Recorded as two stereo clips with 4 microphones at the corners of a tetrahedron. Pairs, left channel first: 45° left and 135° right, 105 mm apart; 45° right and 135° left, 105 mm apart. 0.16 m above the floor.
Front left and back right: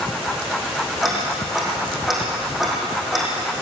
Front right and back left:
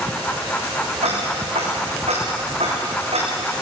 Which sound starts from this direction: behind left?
Ticking, at 1.0 s.